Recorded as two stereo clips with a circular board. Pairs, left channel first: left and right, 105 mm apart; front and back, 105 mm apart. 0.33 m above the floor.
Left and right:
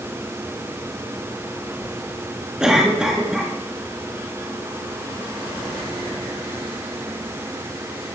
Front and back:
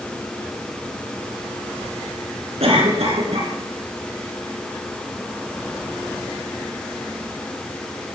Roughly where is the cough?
Behind.